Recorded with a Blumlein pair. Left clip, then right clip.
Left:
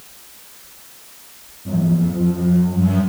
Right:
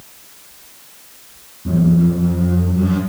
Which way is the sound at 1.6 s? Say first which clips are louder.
Right 4 dB; 30° right.